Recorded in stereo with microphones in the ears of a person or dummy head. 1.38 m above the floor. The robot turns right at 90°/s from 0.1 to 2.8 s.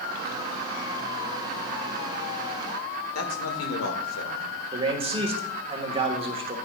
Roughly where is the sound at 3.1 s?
Left.